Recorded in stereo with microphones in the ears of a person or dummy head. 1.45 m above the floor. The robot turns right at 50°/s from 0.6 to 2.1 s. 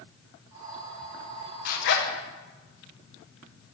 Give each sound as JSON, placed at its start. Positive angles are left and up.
{"t": 1.6, "sound": "a zipper", "side_deg": 55, "distance_m": 1.1}